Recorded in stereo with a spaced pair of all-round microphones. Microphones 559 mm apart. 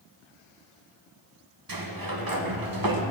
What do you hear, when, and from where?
1.7 s a sliding door: 40° right (ahead or behind), 0.9 m